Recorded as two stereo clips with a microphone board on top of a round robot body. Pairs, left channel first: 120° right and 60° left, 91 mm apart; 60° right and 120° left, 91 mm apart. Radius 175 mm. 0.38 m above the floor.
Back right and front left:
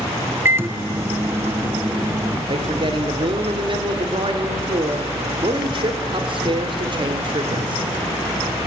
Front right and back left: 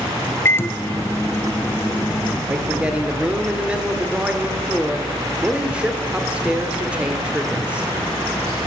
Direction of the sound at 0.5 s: Straight ahead.